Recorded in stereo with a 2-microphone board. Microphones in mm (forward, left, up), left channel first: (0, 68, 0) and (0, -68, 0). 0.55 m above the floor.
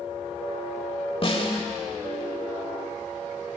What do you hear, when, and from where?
1.2 s a snare drum: 40° left (ahead or behind), 1.2 m